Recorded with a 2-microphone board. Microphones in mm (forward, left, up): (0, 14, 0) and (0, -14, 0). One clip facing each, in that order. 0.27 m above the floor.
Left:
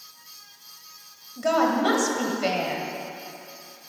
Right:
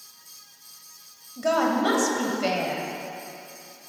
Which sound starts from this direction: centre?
A woman speaking, at 1.4 s.